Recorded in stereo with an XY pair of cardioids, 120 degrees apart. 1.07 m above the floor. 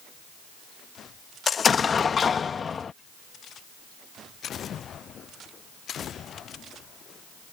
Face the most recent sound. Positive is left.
turn(degrees=35)